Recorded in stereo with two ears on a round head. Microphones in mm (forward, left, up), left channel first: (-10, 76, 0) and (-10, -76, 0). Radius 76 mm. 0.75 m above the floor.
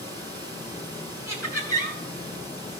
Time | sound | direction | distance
0.0 | running water | 25° right (ahead or behind) | 6.5 m
1.3 | laughter | 15° right (ahead or behind) | 8 m